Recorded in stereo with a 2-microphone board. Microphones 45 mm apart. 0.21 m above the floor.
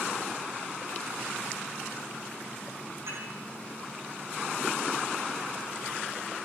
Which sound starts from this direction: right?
Dishes clattering, at 3.1 s.